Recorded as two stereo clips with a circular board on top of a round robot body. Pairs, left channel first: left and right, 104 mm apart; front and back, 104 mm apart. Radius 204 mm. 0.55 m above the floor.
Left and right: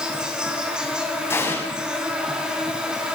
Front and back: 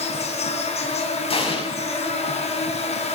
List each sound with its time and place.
0.0 s an insect: 10° right, 4 m
1.3 s an explosion: 25° left, 7 m